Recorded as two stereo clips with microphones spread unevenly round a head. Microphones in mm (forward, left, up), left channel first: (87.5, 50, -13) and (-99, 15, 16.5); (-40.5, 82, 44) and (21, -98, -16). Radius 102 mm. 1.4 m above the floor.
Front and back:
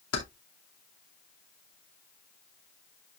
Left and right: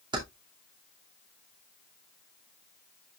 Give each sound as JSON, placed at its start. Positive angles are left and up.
{"t": 0.1, "sound": "keys jangling", "azimuth_deg": 0, "distance_m": 2.0}